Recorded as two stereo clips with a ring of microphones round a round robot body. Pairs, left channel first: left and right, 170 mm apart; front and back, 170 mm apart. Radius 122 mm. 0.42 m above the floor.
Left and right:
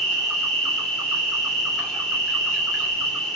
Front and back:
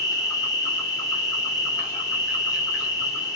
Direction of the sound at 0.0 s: 10° left.